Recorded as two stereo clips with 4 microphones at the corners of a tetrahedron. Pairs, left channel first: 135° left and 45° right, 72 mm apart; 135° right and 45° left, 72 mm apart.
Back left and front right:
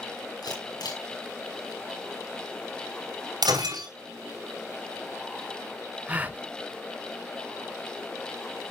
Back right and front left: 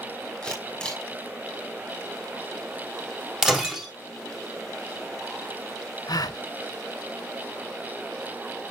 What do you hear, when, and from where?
0.4 s a camera shutter: 145° left, 5 m
3.4 s breaking glass: 40° right, 3 m
6.1 s a gasp: 110° right, 0.6 m